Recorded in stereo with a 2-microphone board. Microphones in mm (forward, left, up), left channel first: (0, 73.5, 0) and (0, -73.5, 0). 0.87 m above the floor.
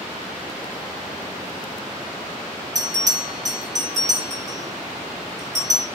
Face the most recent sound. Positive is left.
turn(degrees=-60)  # may be behind; listen again after turning